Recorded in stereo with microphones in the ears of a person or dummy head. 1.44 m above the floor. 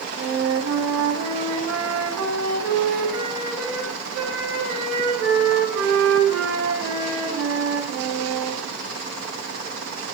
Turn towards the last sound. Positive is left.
turn(degrees=-80)